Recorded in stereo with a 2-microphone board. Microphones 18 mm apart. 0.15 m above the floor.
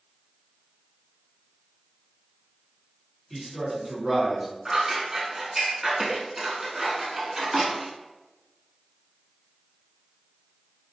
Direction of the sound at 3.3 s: 10° left (ahead or behind).